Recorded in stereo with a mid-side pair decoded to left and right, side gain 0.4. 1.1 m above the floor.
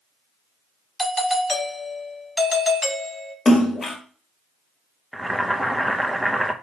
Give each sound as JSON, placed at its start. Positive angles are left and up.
{"t": 1.0, "sound": "a doorbell", "azimuth_deg": 10, "distance_m": 1.8}
{"t": 3.5, "sound": "a splash", "azimuth_deg": 40, "distance_m": 1.6}
{"t": 5.1, "sound": "boiling", "azimuth_deg": -5, "distance_m": 0.6}